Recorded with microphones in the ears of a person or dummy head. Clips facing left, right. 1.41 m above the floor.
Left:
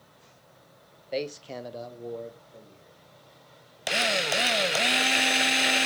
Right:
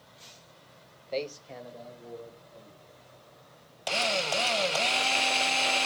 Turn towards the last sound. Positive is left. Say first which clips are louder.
# left 1 dB
turn(degrees=20)  # may be behind; listen again after turning